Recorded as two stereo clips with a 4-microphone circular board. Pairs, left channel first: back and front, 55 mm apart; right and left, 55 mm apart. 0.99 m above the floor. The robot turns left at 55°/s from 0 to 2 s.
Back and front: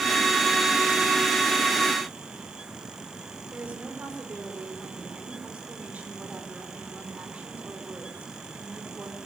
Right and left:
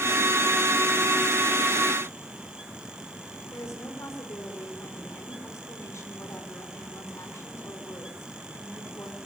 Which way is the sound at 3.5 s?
65° right.